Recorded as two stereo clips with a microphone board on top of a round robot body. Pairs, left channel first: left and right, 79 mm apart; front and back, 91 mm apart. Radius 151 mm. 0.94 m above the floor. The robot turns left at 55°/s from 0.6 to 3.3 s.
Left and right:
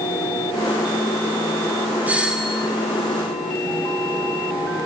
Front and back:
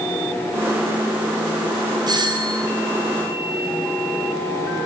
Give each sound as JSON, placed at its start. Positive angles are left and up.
{"t": 2.1, "sound": "a doorbell", "azimuth_deg": -155, "distance_m": 1.8}